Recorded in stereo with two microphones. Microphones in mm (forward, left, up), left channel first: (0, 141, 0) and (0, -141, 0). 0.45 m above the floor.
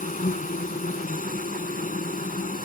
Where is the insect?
30° left (ahead or behind).